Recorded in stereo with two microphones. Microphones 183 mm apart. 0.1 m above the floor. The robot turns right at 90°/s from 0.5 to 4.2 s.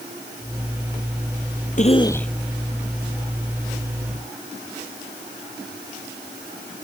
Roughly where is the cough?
Behind left.